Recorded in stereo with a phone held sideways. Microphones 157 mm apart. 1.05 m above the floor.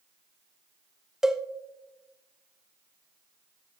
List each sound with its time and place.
1.2 s a cowbell: 5° right (ahead or behind), 0.6 m